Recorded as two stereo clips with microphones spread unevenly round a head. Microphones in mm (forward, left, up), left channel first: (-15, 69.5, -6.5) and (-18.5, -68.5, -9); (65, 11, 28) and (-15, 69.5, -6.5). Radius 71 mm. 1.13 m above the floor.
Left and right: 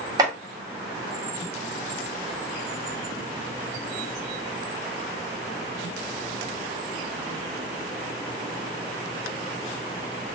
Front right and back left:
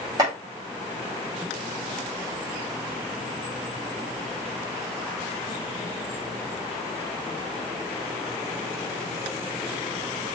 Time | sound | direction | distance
0.2 | chopping | 150° right | 3 m